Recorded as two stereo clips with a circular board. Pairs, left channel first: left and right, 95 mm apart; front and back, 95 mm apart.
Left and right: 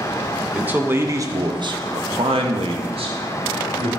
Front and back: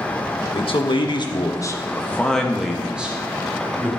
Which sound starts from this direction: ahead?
A man speaking, at 0.5 s.